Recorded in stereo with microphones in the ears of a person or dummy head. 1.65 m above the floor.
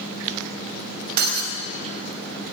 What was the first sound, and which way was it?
Breaking glass, 50° right (ahead or behind).